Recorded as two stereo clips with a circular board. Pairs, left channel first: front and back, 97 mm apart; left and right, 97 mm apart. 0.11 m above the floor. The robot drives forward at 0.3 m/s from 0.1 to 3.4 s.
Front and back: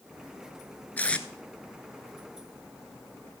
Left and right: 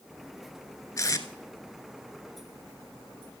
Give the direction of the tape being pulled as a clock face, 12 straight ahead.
10 o'clock.